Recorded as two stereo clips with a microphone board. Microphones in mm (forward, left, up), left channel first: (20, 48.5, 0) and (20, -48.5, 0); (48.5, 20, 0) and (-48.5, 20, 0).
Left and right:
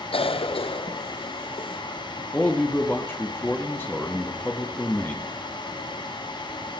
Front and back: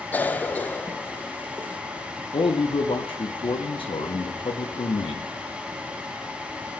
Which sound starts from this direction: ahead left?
A man speaking, at 2.3 s.